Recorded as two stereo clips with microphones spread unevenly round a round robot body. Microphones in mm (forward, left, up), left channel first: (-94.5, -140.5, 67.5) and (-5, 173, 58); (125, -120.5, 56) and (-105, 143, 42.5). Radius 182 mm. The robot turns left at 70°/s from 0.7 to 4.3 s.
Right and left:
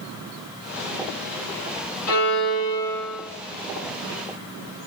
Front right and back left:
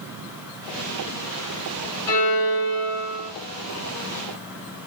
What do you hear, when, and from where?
2.1 s a violin: 125° right, 2 m; by 3.3 s 150° left, 2 m